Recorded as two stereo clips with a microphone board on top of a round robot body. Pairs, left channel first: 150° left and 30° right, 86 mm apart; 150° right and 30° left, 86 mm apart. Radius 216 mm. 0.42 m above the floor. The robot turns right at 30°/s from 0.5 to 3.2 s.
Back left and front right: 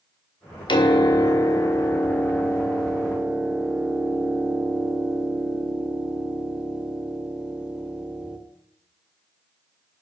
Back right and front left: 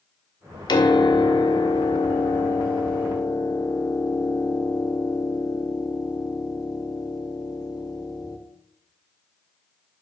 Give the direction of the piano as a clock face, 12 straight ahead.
6 o'clock.